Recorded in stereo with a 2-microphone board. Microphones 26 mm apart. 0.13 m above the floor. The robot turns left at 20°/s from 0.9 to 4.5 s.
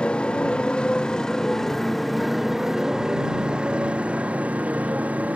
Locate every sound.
0.0 s a motorcycle: 45° left (ahead or behind); by 5.4 s 75° right (ahead or behind)